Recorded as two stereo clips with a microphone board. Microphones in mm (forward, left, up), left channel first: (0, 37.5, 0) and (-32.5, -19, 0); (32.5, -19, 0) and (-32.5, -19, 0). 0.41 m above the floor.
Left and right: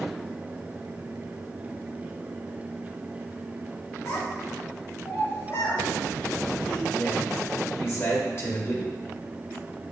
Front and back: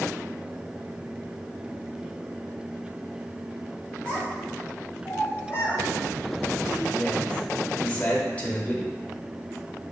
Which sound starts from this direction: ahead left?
A man speaking, at 6.9 s.